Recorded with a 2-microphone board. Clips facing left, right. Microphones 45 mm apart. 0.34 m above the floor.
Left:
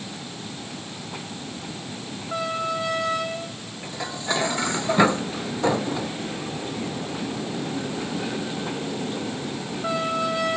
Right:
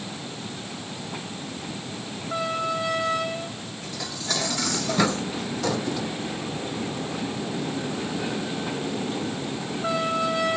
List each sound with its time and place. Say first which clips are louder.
3.8 s dishes clattering: left 4 dB; 25° left (ahead or behind)